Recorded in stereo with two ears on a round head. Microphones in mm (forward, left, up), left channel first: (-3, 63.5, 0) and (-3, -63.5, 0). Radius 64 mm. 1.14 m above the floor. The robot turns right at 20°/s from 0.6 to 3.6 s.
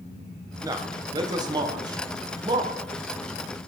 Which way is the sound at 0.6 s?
25° right (ahead or behind).